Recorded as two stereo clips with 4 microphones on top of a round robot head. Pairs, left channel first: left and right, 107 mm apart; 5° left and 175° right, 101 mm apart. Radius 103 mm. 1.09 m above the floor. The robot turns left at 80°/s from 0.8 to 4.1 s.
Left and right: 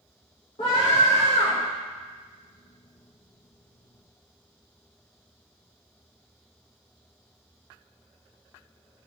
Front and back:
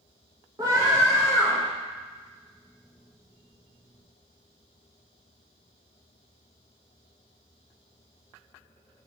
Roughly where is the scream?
Behind left.